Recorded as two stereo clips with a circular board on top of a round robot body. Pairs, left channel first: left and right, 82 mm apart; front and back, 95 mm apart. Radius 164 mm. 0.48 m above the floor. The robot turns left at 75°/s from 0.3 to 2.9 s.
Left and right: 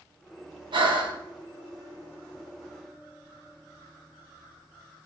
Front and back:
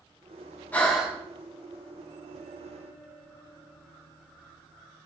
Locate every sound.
0.7 s breathing: 75° right, 2 m; by 1.2 s 105° right, 2 m